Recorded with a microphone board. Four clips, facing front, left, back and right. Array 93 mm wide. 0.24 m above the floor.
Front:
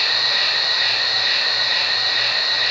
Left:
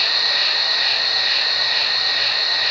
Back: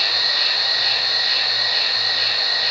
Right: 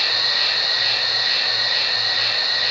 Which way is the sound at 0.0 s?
40° left.